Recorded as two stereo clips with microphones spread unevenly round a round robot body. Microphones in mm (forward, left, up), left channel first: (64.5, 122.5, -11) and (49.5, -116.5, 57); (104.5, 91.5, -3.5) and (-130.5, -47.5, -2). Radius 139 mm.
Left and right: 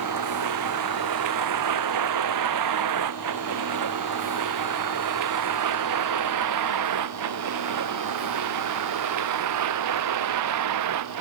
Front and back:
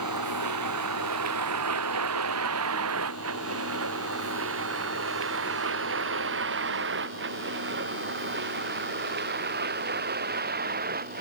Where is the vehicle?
115° right; by 11.2 s 90° right.